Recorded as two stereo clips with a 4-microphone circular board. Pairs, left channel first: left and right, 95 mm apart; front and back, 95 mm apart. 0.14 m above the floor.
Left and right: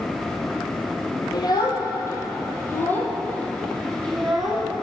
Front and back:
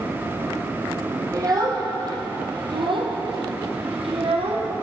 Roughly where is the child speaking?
Behind left.